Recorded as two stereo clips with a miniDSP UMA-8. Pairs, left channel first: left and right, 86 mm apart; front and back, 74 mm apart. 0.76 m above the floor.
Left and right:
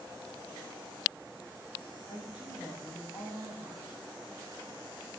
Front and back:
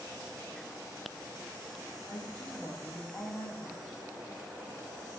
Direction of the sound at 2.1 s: 65° left.